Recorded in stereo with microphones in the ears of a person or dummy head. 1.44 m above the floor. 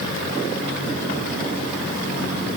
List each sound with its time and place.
Only background noise.